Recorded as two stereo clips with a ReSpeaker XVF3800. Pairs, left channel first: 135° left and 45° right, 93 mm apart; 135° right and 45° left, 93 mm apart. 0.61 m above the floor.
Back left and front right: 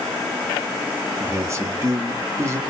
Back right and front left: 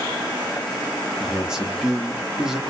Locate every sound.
1.2 s a man speaking: 35° right, 0.7 m